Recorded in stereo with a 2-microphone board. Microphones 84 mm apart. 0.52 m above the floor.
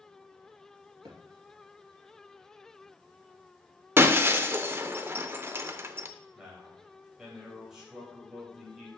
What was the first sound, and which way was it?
A thud, 50° right (ahead or behind).